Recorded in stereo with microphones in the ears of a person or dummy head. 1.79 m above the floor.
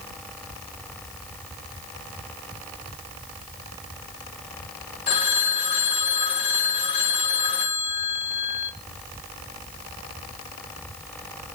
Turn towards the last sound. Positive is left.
turn(degrees=25)  # may be behind; listen again after turning